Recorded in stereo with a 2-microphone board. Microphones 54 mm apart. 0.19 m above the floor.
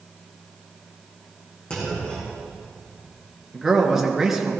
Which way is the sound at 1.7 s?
20° left (ahead or behind).